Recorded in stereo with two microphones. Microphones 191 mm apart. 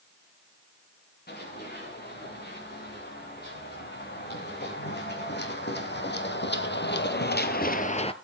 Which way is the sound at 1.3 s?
60° left (ahead or behind).